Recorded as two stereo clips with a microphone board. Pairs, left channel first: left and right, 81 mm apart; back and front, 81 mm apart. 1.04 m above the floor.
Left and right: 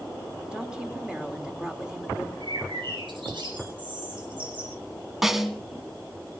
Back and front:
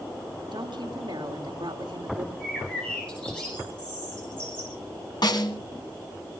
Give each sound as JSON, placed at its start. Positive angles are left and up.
{"t": 0.5, "sound": "a woman speaking", "azimuth_deg": -10, "distance_m": 3.0}
{"t": 2.4, "sound": "a bird", "azimuth_deg": -100, "distance_m": 9.0}
{"t": 5.2, "sound": "a snare drum", "azimuth_deg": -175, "distance_m": 1.6}